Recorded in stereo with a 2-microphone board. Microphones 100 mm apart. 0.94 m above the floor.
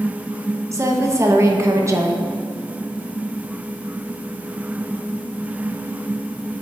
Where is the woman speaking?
30° right (ahead or behind), 1.0 m.